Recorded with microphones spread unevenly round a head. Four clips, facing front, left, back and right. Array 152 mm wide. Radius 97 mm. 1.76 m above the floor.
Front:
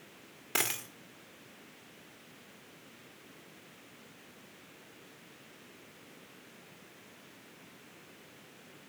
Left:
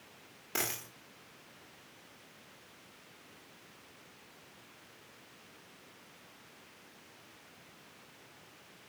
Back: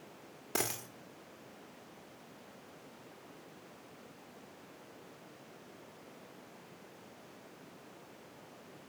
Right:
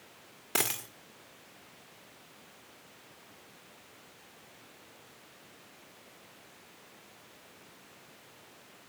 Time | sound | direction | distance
0.6 | a dropped coin | 125° right | 1.6 m